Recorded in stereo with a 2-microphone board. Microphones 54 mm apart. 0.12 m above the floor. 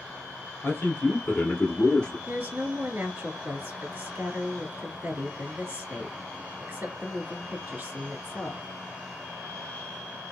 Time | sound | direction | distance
0.6 | a man speaking | 40° left (ahead or behind) | 1.9 m
2.3 | a woman speaking | 35° right (ahead or behind) | 1.5 m